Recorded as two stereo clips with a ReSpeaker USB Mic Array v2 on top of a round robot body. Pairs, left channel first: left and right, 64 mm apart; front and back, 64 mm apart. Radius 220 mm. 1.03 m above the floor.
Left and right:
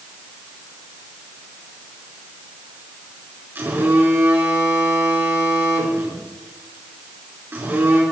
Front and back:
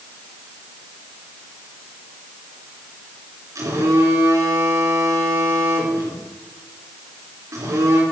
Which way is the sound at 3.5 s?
145° right.